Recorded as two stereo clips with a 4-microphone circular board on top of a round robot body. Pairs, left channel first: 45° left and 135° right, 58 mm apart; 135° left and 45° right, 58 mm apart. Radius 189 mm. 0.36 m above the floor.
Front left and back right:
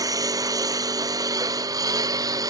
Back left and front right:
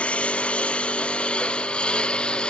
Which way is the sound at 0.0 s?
150° right.